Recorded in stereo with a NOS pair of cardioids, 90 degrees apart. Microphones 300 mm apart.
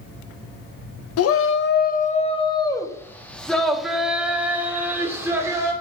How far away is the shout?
About 0.8 m.